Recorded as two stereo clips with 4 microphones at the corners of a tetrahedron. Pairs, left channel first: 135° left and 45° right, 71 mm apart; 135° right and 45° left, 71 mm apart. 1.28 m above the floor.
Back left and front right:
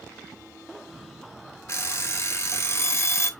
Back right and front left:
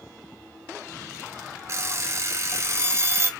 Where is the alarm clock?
85° left, 1.1 m.